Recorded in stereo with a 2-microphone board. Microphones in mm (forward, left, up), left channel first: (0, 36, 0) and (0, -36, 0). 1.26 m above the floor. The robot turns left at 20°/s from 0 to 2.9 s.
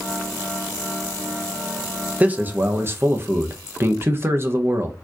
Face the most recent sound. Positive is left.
turn(degrees=-35)  # may be behind; listen again after turning